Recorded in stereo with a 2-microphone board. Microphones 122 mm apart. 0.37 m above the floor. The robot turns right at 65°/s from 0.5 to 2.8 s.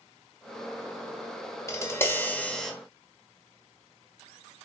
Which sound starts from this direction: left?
Tapping, at 1.7 s.